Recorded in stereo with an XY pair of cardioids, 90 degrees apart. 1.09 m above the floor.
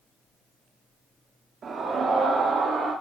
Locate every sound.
1.6 s a scream: 65° right, 1.9 m; by 2.9 s 70° right, 3 m